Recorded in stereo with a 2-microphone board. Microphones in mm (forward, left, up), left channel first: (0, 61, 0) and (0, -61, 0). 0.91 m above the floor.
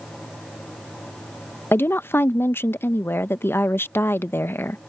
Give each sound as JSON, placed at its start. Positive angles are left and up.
{"t": 1.7, "sound": "a woman speaking", "side_deg": 20}